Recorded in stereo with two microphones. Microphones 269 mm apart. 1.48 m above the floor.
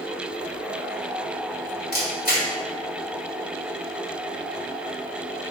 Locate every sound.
1.9 s a camera shutter: 35° left (ahead or behind), 2.5 m